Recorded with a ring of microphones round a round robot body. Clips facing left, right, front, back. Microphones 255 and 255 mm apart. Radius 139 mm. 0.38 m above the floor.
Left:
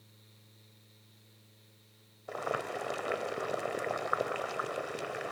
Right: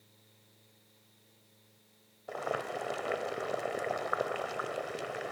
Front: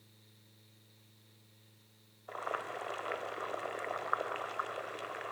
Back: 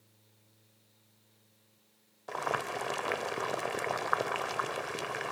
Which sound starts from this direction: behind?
Boiling, at 2.3 s.